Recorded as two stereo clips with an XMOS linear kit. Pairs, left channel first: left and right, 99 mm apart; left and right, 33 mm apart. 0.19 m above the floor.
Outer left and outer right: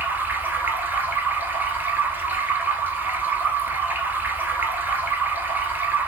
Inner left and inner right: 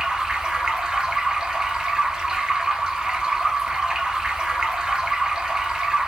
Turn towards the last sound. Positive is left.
turn(degrees=-20)  # may be behind; listen again after turning